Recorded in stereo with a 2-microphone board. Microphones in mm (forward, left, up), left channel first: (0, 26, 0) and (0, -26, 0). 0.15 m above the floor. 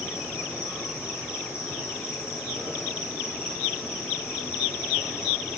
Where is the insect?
55° left (ahead or behind), 5 m.